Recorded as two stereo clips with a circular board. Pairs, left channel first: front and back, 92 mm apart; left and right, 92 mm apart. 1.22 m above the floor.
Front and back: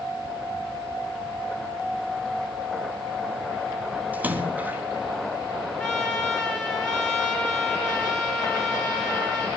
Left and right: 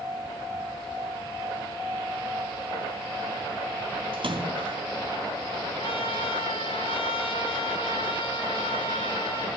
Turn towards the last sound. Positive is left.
turn(degrees=75)